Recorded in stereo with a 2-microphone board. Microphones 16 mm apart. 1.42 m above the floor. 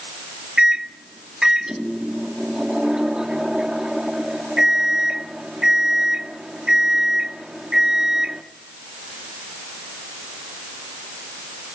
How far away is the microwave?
About 1.8 m.